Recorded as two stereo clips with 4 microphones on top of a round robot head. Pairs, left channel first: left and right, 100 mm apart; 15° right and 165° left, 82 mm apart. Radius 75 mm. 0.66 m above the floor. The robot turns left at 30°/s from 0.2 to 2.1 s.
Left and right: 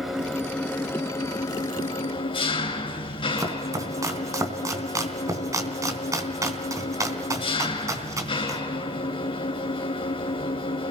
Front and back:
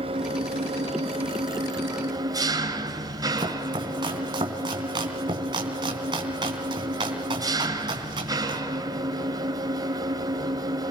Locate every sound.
0.0 s an engine running: 175° right, 4.5 m; by 10.9 s 125° left, 4.5 m
3.4 s chopping: 150° right, 3.5 m